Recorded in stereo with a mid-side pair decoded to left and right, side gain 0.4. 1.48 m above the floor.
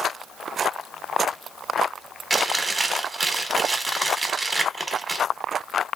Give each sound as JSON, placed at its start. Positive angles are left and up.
{"t": 2.3, "sound": "chewing", "azimuth_deg": -30, "distance_m": 1.0}